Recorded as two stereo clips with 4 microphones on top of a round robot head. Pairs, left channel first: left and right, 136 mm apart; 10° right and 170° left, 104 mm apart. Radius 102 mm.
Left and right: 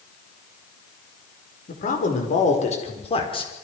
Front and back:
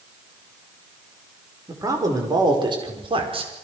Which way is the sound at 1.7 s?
110° left.